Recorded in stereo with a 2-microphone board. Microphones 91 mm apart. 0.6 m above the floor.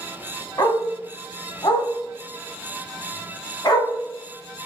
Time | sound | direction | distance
0.6 | a dog barking | 45° left (ahead or behind) | 1.1 m